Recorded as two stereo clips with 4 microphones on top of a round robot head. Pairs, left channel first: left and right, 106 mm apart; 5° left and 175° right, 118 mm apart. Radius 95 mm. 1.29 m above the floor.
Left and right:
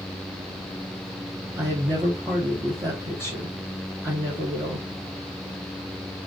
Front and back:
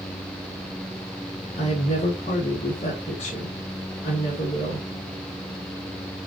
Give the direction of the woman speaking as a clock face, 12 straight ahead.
1 o'clock.